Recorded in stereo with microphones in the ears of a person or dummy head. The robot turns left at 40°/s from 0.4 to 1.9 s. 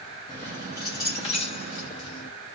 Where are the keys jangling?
10° left (ahead or behind), 0.7 m; by 2.3 s 30° left (ahead or behind), 0.7 m.